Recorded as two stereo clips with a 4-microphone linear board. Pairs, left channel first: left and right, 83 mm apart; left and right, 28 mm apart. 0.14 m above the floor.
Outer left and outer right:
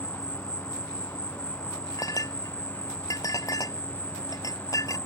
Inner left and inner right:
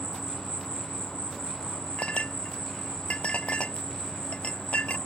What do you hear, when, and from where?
0.0 s an insect: 20° left (ahead or behind)
2.0 s a clink: 45° left (ahead or behind)